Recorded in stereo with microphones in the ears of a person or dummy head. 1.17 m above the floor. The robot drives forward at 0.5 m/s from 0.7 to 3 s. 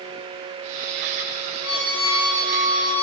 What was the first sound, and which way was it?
A violin, 80° left.